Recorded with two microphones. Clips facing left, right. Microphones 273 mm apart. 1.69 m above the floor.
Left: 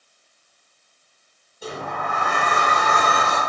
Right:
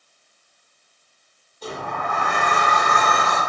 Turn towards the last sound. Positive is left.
turn(degrees=10)  # may be behind; listen again after turning